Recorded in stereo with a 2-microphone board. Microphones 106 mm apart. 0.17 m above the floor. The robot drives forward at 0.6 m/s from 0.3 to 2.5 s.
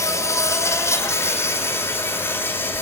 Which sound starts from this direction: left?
An insect, at 0.0 s.